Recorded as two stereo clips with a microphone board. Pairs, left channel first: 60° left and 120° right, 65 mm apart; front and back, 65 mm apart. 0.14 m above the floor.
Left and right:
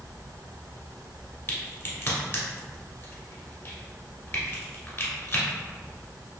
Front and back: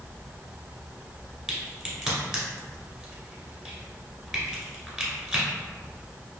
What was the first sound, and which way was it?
A crack, 100° left.